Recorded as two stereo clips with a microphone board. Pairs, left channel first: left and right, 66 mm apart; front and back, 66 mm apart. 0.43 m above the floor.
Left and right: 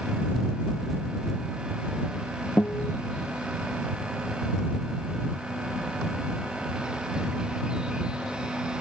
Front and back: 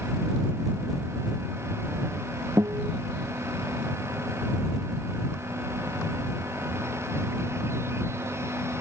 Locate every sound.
2.6 s a guitar: 155° left